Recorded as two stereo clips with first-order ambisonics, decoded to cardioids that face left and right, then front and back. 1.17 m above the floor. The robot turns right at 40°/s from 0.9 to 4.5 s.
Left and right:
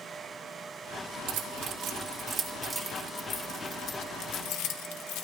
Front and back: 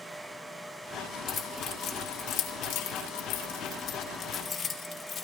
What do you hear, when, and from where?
1.3 s keys jangling: 55° right, 1.5 m; by 5.2 s 70° left, 1.5 m